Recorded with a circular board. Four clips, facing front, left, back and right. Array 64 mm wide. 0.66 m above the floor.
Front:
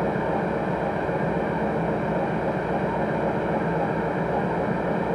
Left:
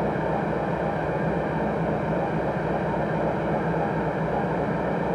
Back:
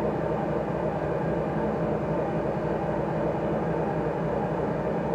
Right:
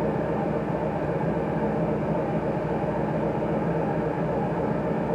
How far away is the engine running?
About 3.5 m.